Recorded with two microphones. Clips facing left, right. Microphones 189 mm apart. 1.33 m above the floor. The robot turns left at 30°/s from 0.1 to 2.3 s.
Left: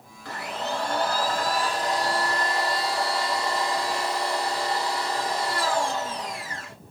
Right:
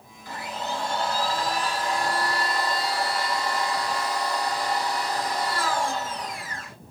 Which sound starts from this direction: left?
A blender, at 0.2 s.